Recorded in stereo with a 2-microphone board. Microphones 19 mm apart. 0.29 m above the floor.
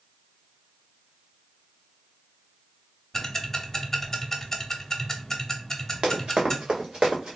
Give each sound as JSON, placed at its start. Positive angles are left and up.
{"t": 3.1, "sound": "ticking", "side_deg": 15, "distance_m": 0.6}
{"t": 6.0, "sound": "running footsteps", "side_deg": -65, "distance_m": 1.4}